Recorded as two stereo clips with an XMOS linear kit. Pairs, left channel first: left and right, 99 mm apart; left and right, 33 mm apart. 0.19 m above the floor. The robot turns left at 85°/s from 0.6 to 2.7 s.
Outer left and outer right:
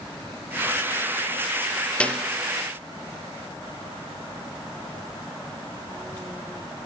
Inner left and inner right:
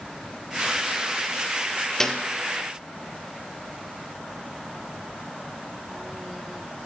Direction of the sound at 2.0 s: 10° left (ahead or behind).